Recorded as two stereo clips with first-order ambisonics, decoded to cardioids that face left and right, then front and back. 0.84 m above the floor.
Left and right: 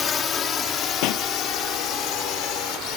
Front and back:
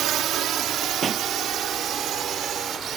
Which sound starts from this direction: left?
A pop, at 1.0 s.